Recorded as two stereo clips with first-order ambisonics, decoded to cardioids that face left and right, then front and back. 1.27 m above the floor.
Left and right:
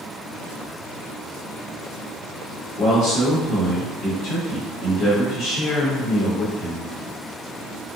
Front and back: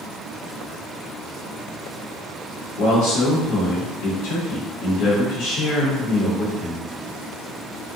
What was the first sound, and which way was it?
A man speaking, 35° left.